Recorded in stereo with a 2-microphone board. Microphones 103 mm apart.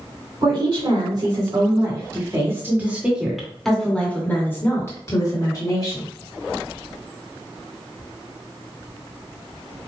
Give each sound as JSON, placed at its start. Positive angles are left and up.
{"t": 0.4, "sound": "a woman speaking", "side_deg": -50, "distance_m": 2.0}